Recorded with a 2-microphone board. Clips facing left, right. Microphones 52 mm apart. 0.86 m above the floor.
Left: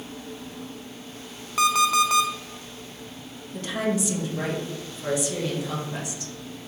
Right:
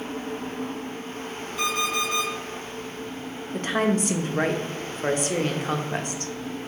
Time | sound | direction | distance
1.6 | an alarm clock | 65° left (ahead or behind) | 0.6 m
3.5 | a woman speaking | 45° right (ahead or behind) | 0.6 m